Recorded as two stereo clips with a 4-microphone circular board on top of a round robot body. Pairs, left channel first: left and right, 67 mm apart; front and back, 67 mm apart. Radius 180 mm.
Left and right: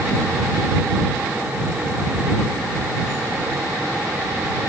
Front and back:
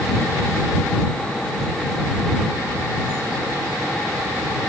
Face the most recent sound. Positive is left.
No sound to turn to.